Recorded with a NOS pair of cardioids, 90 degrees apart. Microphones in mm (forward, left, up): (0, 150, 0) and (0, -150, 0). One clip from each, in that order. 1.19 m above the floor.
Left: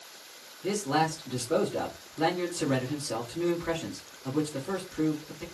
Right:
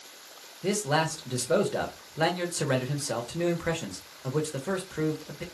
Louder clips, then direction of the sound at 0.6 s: Right 1 dB; 60° right.